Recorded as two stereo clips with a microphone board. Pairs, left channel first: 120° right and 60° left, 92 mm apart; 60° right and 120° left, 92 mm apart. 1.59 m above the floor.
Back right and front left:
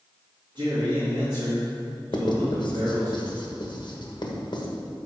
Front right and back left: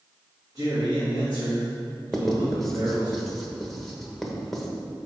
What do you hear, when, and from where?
0.6 s a man speaking: 70° left, 2.5 m
2.1 s writing: 145° right, 1.2 m